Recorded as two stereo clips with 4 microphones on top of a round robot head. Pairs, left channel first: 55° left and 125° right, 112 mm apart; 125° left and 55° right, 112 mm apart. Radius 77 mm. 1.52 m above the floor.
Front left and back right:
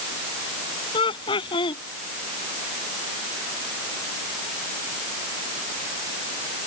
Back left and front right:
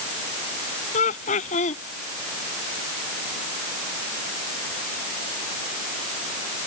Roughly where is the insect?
No insect in this recording.